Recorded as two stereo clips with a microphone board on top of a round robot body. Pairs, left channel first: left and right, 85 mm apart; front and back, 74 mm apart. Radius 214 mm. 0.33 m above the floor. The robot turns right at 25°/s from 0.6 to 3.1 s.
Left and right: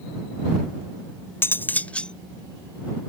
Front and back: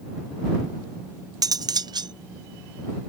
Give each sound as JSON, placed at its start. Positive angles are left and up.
{"t": 1.4, "sound": "cutlery clinking", "azimuth_deg": 155}